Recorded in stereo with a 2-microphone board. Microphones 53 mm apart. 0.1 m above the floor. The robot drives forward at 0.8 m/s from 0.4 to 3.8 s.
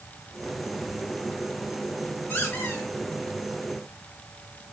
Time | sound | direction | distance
2.3 | a squeak | 45° left (ahead or behind) | 5 m